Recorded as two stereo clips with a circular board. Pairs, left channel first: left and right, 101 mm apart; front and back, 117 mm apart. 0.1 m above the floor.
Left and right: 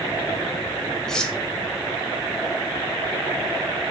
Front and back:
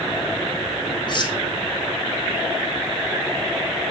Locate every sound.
1.1 s cutlery clinking: 10° left, 0.9 m